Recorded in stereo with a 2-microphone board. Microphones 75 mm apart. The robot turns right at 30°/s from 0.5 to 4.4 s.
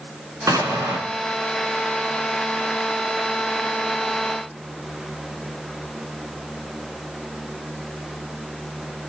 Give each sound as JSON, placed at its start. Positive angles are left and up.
{"t": 0.5, "sound": "an explosion", "side_deg": -55, "distance_m": 2.0}